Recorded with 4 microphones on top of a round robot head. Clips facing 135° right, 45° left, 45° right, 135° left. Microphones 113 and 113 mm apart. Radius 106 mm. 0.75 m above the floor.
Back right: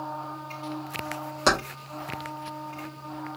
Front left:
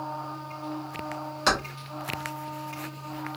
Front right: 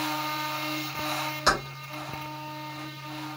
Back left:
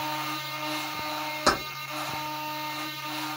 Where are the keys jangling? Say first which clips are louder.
Back right 2 dB, back left 1 dB; straight behind, 1.2 m.